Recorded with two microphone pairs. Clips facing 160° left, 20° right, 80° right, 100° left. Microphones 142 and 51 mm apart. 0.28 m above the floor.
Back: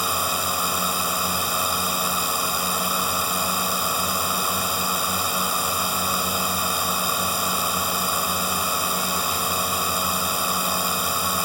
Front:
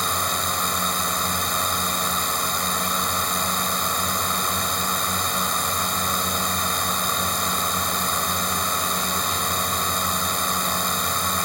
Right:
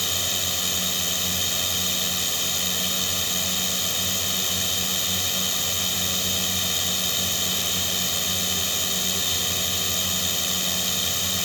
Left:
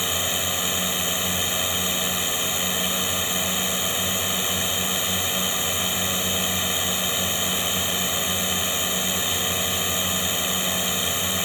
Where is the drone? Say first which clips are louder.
Back 1 dB, left 3 dB; 95° left.